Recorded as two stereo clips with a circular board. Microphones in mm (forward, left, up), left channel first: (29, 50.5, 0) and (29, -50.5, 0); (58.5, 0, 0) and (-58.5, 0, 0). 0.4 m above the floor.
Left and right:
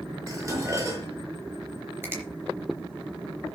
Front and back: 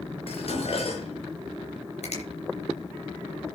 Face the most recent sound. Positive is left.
turn(degrees=-25)